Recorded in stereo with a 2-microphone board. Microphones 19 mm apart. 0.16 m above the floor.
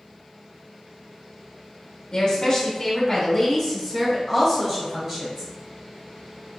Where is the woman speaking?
30° left (ahead or behind), 1.2 m; by 5.5 s 30° right (ahead or behind), 1.9 m.